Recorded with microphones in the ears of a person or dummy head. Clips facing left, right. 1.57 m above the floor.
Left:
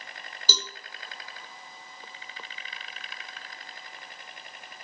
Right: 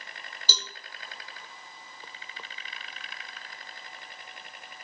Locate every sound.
0.5 s a cowbell: 75° left (ahead or behind), 1.0 m